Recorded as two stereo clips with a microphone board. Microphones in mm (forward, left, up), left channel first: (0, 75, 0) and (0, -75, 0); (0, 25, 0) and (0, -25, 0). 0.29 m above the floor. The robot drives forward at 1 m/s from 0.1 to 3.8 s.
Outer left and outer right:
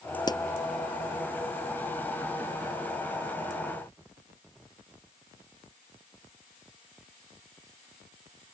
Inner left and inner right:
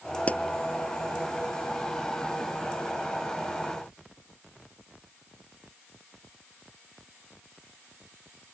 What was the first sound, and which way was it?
A pop, 30° left (ahead or behind).